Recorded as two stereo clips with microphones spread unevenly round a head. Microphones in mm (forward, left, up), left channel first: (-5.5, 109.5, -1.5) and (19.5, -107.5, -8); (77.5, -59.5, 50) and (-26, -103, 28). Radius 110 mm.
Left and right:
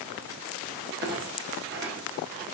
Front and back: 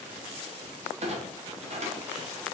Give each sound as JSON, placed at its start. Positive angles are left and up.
{"t": 1.0, "sound": "a clunk", "azimuth_deg": -130, "distance_m": 1.0}